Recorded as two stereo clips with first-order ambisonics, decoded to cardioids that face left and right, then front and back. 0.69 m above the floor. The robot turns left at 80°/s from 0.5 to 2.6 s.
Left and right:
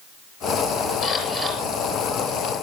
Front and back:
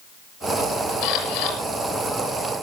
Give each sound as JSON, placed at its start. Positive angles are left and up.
{"t": 1.0, "sound": "a camera shutter", "azimuth_deg": 45, "distance_m": 7.0}